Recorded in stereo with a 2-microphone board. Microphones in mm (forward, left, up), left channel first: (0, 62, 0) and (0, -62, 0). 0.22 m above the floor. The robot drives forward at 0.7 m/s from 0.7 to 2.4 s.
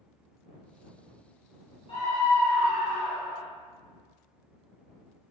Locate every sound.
1.9 s a scream: 50° left (ahead or behind), 2.0 m; by 3.5 s 45° left (ahead or behind), 2 m